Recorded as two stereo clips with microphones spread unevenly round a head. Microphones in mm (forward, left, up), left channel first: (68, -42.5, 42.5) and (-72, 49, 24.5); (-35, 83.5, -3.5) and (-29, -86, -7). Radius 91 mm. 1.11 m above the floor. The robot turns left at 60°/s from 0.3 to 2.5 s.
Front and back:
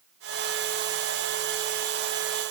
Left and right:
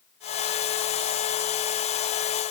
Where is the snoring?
No snoring in this recording.